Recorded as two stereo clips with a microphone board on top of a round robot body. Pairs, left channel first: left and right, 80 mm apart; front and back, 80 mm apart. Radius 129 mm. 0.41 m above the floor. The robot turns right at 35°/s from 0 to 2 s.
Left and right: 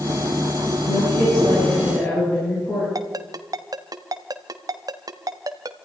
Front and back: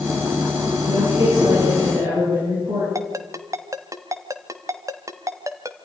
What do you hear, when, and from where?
0.9 s a woman speaking: 115° left, 8.5 m; by 2.9 s 155° left, 8.5 m
3.0 s a ringtone: 130° right, 1.3 m